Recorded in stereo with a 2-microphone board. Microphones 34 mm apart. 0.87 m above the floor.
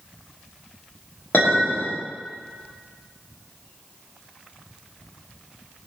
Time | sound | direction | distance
1.3 | a clink | 55° left (ahead or behind) | 1.3 m